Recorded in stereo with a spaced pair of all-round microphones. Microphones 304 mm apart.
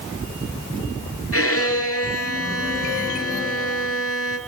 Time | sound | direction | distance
1.3 | a violin | 50° left (ahead or behind) | 4 m